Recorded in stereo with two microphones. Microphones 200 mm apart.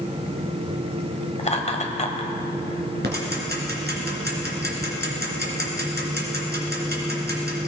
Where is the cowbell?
I don't hear a cowbell.